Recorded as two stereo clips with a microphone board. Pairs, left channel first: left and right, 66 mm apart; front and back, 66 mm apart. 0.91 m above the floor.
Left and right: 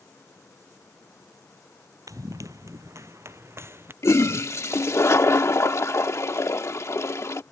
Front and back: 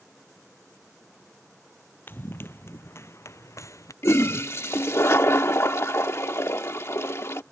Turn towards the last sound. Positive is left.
turn(degrees=45)